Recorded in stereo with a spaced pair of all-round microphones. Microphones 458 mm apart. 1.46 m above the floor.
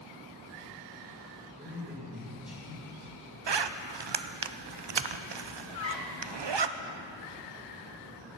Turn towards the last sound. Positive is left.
turn(degrees=-75)  # may be behind; listen again after turning